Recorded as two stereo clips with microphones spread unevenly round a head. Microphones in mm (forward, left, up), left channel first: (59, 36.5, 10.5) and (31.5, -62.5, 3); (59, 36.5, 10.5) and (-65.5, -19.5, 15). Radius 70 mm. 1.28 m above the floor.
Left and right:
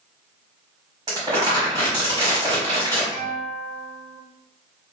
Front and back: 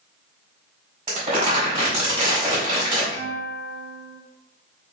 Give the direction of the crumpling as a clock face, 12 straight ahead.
5 o'clock.